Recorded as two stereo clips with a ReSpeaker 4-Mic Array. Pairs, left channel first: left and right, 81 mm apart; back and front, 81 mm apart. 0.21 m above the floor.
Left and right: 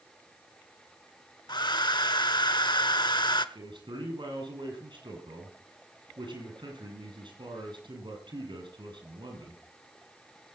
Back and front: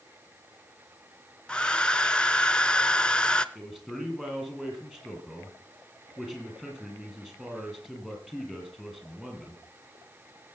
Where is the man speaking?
85° right, 6.5 m.